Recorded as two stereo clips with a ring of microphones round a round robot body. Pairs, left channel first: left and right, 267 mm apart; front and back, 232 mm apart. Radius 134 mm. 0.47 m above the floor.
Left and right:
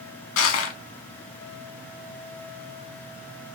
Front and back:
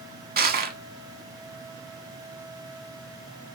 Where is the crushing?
130° left, 0.7 m.